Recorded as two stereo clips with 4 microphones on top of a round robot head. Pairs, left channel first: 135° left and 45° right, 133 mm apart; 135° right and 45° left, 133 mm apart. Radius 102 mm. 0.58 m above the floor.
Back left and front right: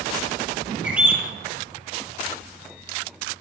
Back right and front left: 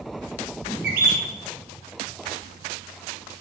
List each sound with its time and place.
0.8 s a bird: 35° left, 4 m